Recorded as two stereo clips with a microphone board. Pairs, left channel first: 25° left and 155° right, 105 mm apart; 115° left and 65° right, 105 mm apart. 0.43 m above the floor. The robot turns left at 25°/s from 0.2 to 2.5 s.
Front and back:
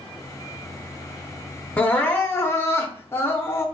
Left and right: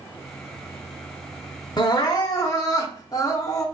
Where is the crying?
95° left, 0.7 m; by 3.6 s 75° left, 0.7 m.